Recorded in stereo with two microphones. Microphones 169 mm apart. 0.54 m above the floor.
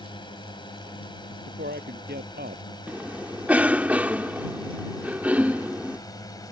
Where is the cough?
10° right (ahead or behind).